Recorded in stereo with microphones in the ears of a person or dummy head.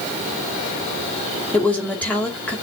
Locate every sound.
1.5 s a woman speaking: 10° left (ahead or behind), 2.5 m